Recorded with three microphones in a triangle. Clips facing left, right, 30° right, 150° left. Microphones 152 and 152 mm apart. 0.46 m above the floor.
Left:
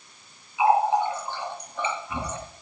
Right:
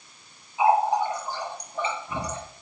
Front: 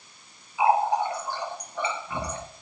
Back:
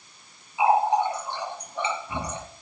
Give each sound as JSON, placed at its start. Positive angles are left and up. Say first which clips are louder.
{"t": 0.6, "sound": "a running tap", "louder": "even, back 1 dB", "azimuth_deg": -140, "distance_m": 5.5}